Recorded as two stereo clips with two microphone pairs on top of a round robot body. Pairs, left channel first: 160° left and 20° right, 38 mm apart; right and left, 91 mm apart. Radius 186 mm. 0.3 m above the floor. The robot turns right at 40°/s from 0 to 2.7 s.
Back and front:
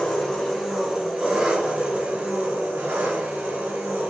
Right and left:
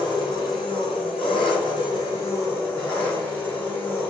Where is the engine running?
130° right, 2 m; by 4.1 s 20° right, 2 m.